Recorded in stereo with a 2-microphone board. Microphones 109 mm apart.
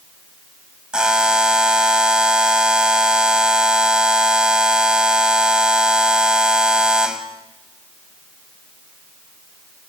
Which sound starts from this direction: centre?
A buzzer, at 0.9 s.